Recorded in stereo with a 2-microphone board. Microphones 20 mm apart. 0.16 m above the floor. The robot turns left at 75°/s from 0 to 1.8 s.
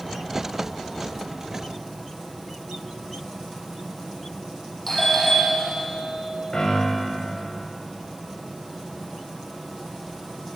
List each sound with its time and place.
4.9 s a doorbell: 15° left (ahead or behind), 7 m
6.5 s a piano: 30° left (ahead or behind), 7.5 m